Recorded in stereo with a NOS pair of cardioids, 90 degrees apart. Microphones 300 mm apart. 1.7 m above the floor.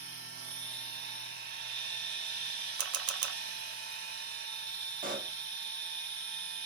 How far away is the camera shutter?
About 0.7 m.